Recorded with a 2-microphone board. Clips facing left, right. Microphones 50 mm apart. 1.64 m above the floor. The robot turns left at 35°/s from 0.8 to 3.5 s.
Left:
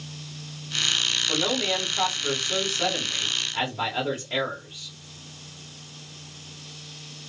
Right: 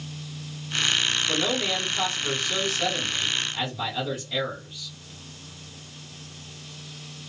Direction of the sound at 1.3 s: 160° right.